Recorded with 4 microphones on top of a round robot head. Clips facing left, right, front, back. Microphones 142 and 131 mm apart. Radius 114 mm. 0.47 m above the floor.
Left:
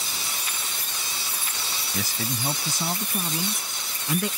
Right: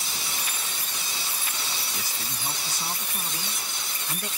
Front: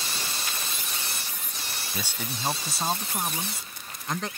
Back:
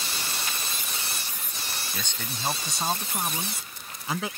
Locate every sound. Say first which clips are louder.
1.9 s a man speaking: left 7 dB, front 2 dB; 80° left; by 4.3 s 95° left